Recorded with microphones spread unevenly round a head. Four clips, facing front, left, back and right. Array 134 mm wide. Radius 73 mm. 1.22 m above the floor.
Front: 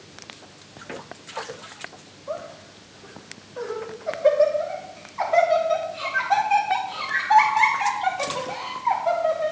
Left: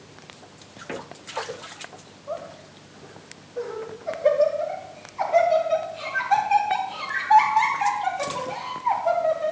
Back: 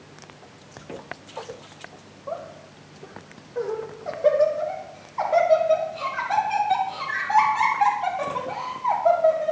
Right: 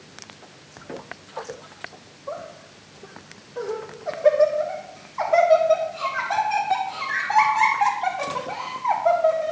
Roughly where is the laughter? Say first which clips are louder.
Even, front 1 dB; behind.